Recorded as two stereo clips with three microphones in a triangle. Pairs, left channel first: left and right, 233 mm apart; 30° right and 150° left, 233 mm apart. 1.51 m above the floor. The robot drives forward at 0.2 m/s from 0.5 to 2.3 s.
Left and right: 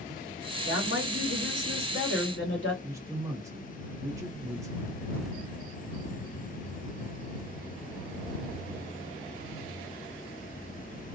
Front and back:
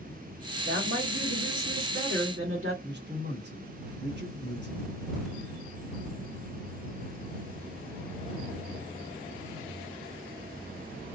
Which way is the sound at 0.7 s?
115° left.